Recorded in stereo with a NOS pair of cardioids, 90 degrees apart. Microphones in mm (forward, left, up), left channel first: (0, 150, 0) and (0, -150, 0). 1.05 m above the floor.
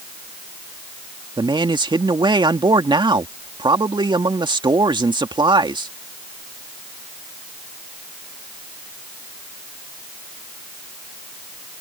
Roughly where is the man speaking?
Ahead.